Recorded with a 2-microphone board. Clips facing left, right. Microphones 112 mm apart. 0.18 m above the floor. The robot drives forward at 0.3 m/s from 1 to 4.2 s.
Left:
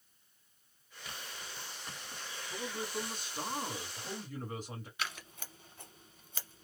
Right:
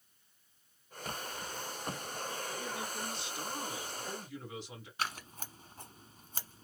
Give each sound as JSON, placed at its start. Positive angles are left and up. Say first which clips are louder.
{"t": 2.5, "sound": "a man speaking", "louder": "left 1 dB", "side_deg": 45, "distance_m": 1.8}
{"t": 5.0, "sound": "scissors", "louder": "right 6 dB", "side_deg": -40, "distance_m": 1.0}